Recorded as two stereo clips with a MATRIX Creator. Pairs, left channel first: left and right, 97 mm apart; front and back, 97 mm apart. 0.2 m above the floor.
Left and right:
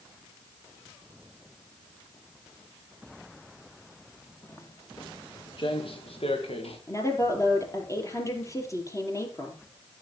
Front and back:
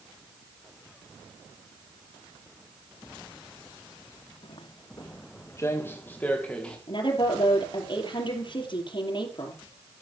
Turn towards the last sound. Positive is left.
turn(degrees=35)